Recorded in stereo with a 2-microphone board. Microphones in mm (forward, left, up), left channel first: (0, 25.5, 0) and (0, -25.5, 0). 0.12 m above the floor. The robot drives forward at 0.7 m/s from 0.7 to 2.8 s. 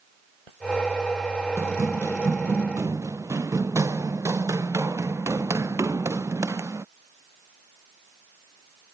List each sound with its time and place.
1.6 s running footsteps: 70° right (ahead or behind)